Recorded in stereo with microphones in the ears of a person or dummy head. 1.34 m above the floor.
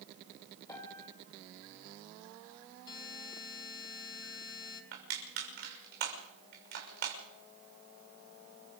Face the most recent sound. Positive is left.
turn(degrees=-60)  # may be behind; listen again after turning